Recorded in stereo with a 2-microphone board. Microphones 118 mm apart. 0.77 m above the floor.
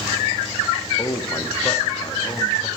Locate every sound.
1.0 s a man speaking: 35° left (ahead or behind), 1.0 m